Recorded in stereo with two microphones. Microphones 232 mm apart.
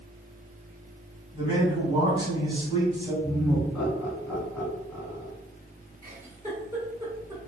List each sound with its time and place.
1.3 s a man speaking: 20° right (ahead or behind), 1.0 m
3.2 s laughter: 5° left (ahead or behind), 1.6 m
6.0 s a giggle: 10° right (ahead or behind), 1.0 m